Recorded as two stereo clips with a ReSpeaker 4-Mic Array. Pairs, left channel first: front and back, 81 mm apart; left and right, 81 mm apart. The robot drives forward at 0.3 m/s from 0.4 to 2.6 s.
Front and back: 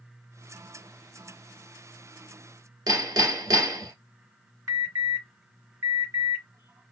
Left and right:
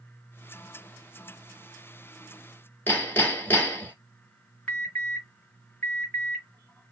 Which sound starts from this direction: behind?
An alarm, at 4.7 s.